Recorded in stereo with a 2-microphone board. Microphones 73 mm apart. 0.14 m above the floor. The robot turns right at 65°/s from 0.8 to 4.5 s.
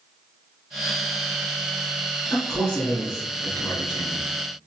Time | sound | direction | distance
2.3 | a man speaking | 5° right | 1.7 m